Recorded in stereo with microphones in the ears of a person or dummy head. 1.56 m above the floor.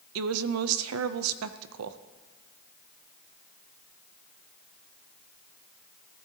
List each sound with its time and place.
0.1 s a woman speaking: 85° right, 0.6 m